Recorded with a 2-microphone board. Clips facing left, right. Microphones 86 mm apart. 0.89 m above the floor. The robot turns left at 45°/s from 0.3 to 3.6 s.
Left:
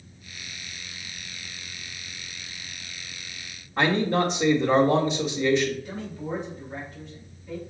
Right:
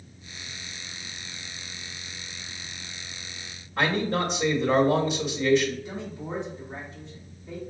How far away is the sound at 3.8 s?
About 1.0 m.